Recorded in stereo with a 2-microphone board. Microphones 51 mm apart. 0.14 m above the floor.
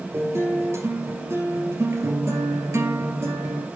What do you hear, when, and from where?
0.1 s a guitar: 60° right (ahead or behind), 2.5 m